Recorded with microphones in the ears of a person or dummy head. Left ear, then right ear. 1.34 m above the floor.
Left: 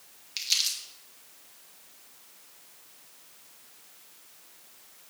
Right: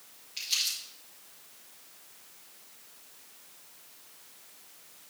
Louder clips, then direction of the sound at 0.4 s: Left 3 dB; 45° left (ahead or behind).